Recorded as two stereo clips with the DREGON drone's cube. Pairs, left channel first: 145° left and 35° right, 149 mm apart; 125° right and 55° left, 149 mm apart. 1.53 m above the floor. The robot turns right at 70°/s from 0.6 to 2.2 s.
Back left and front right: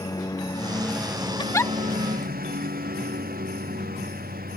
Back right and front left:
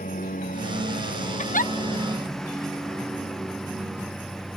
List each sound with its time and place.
0.0 s a lawn mower: 150° right; by 4.6 s 35° right
1.4 s a giggle: 160° right; by 1.7 s 135° right